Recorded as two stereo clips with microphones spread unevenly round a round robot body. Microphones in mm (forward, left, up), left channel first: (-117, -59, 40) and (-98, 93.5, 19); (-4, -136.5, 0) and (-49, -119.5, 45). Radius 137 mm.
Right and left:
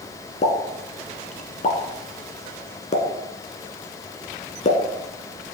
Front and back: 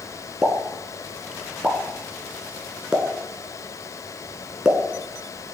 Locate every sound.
0.4 s a pop: 135° right, 1.7 m